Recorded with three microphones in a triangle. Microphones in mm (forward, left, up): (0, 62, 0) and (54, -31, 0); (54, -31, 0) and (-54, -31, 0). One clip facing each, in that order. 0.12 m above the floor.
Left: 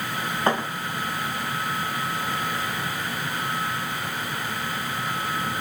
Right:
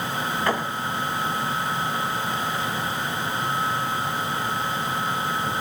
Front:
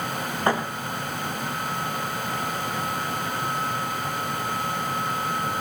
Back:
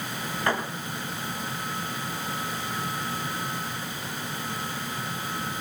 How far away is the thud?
About 6 m.